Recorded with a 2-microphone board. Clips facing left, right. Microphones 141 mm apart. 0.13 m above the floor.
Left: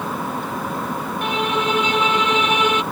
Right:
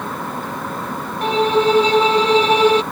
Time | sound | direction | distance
1.2 | a violin | 35° right (ahead or behind) | ?